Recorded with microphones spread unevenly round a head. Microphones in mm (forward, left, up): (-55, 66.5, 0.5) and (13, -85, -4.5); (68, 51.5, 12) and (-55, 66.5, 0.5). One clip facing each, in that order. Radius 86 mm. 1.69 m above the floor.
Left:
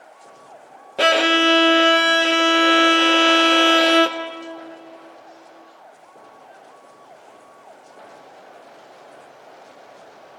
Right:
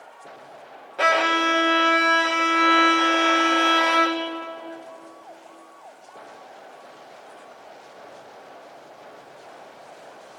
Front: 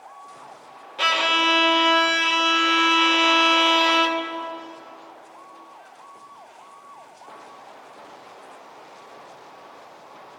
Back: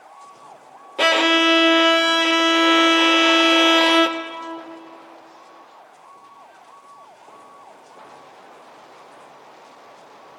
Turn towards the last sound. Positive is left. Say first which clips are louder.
# left 5 dB, back 6 dB
turn(degrees=150)